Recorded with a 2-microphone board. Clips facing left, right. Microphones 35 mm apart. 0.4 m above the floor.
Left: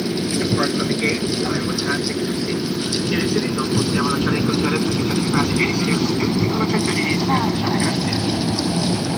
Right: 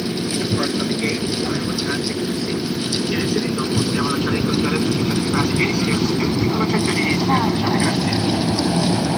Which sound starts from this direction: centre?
An aircraft, at 0.0 s.